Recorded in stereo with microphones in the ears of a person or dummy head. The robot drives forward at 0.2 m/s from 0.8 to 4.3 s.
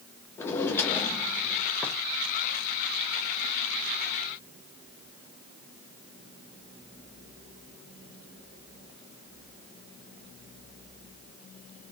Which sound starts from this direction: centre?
A drawer, at 0.4 s.